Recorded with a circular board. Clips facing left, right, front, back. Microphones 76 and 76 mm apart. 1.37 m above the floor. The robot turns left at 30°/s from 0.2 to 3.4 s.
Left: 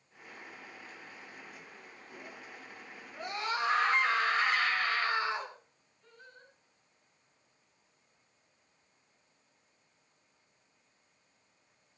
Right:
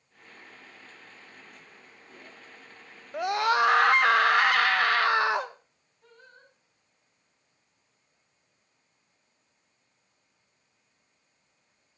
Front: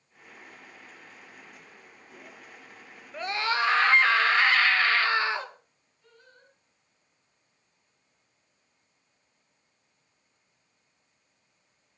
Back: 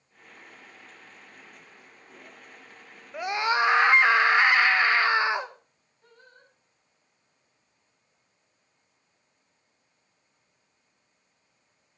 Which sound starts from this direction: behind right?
Singing, at 6.0 s.